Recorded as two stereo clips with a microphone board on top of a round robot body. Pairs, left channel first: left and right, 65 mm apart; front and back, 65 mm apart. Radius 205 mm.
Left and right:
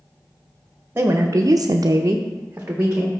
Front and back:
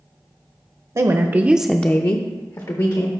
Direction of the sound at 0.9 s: 150° right.